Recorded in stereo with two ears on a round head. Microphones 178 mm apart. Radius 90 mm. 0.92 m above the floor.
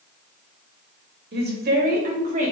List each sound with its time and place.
1.3 s a woman speaking: 55° right (ahead or behind), 1.9 m; by 2.5 s 35° right (ahead or behind), 1.9 m